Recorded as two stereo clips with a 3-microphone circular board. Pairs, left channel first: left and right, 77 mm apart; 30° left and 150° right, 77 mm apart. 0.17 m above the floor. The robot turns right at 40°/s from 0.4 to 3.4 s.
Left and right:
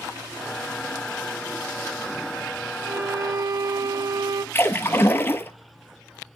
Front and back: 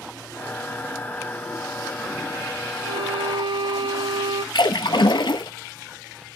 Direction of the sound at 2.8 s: 150° right.